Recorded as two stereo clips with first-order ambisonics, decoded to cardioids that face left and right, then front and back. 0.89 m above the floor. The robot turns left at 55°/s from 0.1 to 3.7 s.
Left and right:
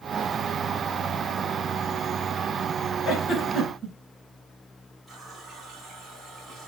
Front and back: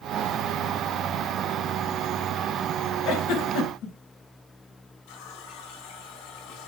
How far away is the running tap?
About 4 m.